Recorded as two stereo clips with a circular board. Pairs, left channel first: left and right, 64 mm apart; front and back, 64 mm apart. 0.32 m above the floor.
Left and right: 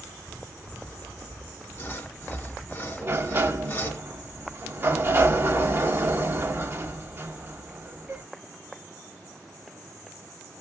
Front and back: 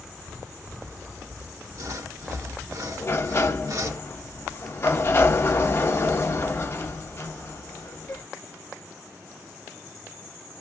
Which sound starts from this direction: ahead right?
A sliding door, at 3.0 s.